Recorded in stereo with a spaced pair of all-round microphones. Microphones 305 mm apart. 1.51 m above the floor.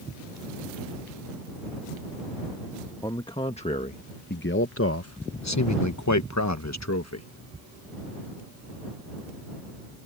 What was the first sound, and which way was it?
A man speaking, 15° left (ahead or behind).